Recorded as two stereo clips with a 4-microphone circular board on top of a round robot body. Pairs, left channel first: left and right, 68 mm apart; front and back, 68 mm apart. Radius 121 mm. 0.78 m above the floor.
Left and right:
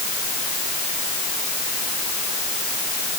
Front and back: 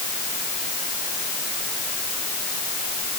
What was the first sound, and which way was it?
Only background noise.